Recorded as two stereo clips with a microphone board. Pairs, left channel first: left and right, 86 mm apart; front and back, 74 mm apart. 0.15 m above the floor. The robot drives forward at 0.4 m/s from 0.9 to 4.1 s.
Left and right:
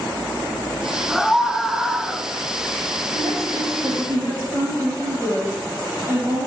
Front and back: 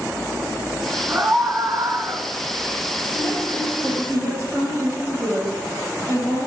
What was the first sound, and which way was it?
A scream, 175° right.